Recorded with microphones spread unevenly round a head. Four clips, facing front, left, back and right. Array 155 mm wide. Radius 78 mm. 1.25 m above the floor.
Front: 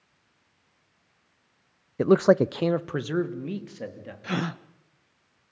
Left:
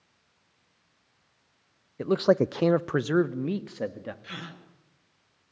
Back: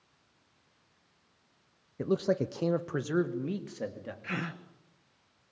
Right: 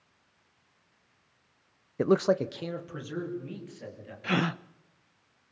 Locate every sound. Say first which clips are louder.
2.0 s a man speaking: left 2 dB, front 10 dB; 30° right, 0.6 m; by 4.1 s 85° left, 2.5 m
4.2 s a gasp: right 13 dB, front 8 dB; 65° right, 0.7 m